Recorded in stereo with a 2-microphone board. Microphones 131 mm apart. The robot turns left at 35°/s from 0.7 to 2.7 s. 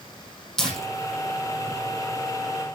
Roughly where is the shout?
I don't hear a shout.